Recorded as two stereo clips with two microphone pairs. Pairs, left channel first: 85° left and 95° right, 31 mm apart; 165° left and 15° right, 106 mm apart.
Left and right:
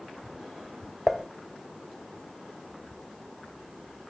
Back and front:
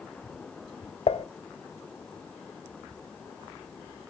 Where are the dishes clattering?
Straight behind, 0.5 m.